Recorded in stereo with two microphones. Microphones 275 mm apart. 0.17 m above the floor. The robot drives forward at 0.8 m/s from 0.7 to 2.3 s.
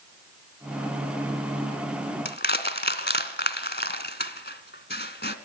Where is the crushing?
40° left (ahead or behind), 1.7 m.